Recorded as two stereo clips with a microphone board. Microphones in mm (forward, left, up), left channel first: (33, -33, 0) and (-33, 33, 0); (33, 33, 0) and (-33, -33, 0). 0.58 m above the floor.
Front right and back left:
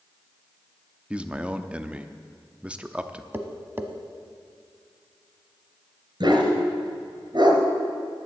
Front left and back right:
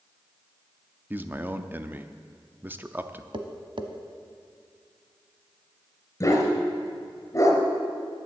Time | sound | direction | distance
1.1 | a man speaking | 170° right | 0.6 m
3.3 | tapping | 160° right | 0.9 m
6.2 | a dog barking | 100° left | 2.5 m